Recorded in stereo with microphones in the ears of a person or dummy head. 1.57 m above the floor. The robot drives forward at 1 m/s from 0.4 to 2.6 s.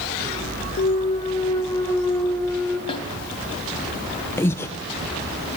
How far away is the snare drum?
About 3.5 m.